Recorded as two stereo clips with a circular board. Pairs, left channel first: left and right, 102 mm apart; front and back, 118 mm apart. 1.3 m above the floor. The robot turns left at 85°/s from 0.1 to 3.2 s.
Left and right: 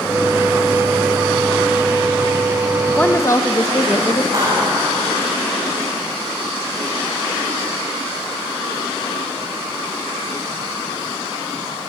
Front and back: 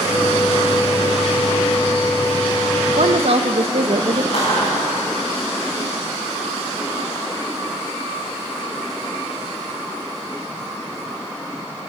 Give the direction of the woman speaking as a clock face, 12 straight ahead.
6 o'clock.